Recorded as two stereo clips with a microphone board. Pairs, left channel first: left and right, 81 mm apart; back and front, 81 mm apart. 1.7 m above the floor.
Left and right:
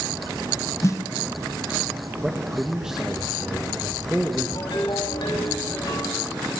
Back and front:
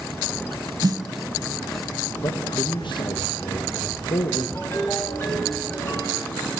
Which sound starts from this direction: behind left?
A ringtone, at 4.5 s.